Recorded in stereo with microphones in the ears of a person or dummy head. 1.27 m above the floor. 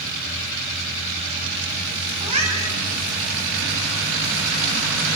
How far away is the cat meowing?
About 5.5 m.